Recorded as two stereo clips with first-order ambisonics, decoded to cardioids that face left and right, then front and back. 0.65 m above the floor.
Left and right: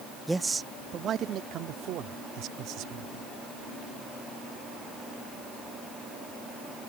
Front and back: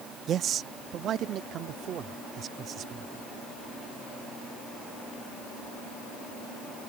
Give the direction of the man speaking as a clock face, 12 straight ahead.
6 o'clock.